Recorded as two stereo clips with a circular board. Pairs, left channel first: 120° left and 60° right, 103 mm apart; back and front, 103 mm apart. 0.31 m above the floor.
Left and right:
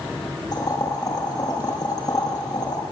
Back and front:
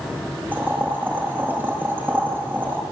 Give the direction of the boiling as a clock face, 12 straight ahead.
10 o'clock.